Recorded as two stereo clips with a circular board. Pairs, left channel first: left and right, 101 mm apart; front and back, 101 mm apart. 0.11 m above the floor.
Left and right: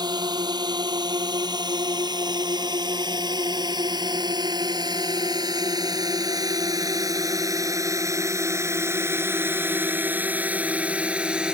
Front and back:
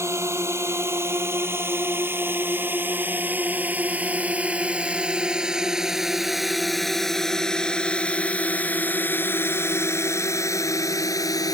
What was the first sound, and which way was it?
A drone, 125° right.